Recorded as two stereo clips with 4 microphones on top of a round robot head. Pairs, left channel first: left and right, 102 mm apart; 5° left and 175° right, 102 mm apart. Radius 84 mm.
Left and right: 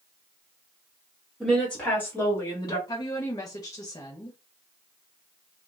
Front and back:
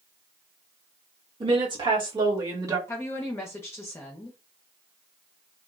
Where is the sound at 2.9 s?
60° left, 0.8 m.